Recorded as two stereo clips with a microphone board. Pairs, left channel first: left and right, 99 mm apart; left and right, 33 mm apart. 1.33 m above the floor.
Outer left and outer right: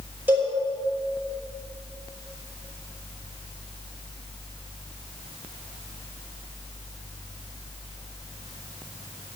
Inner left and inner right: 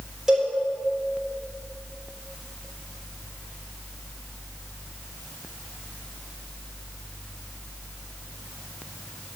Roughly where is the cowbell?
Centre.